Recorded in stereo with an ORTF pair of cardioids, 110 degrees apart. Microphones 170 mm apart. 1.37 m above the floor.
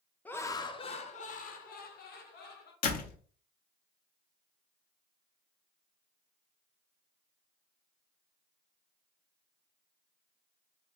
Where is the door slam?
60° left, 0.8 m.